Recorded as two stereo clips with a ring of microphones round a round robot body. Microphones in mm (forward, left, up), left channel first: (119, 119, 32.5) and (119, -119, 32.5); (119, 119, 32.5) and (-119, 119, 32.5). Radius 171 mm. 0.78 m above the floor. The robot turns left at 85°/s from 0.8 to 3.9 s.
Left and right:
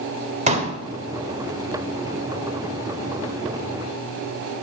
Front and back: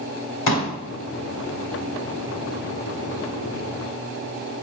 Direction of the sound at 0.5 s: 30° right.